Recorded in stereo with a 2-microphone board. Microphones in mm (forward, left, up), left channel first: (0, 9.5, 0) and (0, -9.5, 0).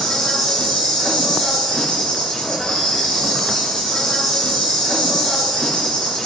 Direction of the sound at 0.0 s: 60° left (ahead or behind).